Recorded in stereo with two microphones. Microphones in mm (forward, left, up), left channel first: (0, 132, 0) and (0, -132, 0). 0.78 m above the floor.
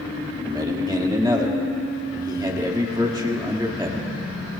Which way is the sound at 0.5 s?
15° right (ahead or behind).